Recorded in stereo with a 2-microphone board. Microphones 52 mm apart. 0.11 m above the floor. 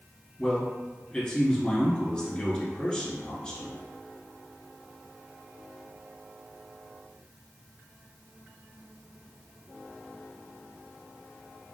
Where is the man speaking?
20° left (ahead or behind), 1.2 m.